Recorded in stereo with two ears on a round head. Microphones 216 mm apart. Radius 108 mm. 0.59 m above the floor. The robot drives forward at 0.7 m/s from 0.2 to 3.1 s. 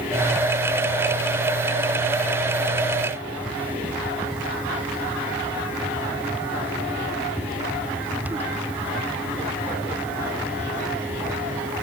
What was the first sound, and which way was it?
Only background noise.